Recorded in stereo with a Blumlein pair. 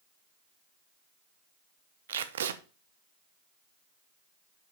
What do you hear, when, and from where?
2.1 s tape being pulled: 60° right, 0.8 m